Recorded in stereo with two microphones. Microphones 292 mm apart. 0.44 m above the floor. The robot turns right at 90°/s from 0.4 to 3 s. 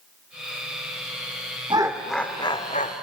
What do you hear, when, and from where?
1.7 s laughter: 15° right (ahead or behind), 1.1 m; by 2.9 s 25° left (ahead or behind), 1.1 m